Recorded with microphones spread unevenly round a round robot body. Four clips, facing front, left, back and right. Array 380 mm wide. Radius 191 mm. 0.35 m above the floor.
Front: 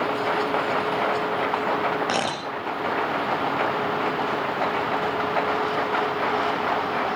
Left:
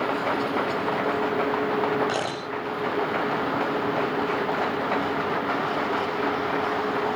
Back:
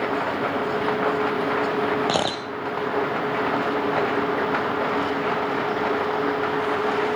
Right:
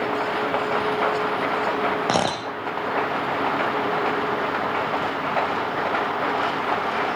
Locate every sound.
2.1 s a camera shutter: 115° right, 4 m